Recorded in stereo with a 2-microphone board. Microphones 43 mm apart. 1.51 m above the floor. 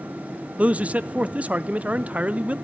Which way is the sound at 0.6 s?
35° right (ahead or behind).